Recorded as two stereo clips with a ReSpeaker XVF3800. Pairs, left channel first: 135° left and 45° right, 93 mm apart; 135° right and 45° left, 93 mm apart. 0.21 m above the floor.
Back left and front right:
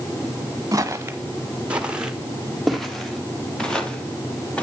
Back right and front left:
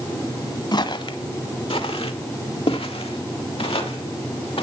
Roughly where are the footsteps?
Right.